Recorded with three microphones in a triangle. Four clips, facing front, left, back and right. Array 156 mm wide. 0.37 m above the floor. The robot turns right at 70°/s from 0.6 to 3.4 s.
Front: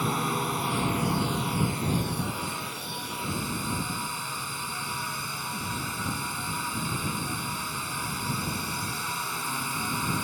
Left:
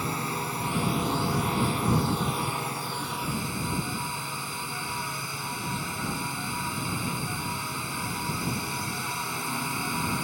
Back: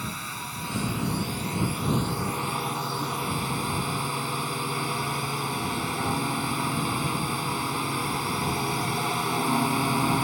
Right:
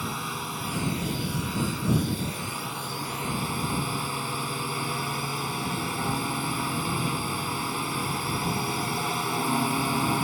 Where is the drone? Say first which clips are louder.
Left 2 dB, front 8 dB; 15° left; by 10.2 s 145° right.